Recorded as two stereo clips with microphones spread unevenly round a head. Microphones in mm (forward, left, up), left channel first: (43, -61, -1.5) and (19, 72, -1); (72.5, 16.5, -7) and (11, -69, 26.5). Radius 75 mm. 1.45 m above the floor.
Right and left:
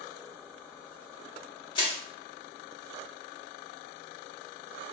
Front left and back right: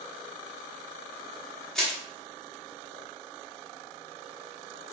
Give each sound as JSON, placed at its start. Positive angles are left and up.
{"t": 1.8, "sound": "crushing", "azimuth_deg": -55, "distance_m": 1.0}